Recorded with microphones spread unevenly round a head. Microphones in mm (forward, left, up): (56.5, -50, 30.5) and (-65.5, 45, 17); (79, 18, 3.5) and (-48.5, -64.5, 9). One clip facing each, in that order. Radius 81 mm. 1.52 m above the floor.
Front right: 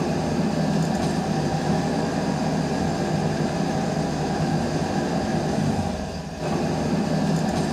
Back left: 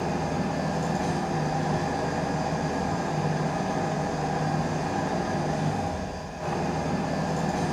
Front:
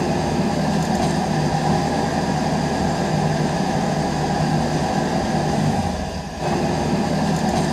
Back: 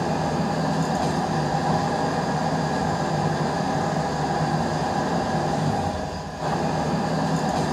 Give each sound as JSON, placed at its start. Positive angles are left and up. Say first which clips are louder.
{"t": 0.0, "sound": "an engine running", "louder": "front right 5 dB, front 4 dB", "azimuth_deg": -25, "distance_m": 0.8}